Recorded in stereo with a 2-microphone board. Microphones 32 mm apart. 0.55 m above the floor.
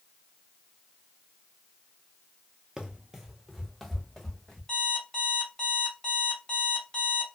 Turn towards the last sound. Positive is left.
turn(degrees=20)  # may be behind; listen again after turning